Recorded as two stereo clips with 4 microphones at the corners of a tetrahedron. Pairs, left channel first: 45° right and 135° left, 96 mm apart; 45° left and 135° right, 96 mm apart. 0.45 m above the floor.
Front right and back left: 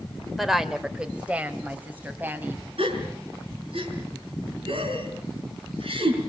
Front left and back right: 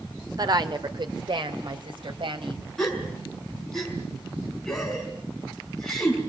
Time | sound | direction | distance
0.4 | a woman speaking | 135° right | 1.6 m
2.8 | a gasp | 130° left | 5.5 m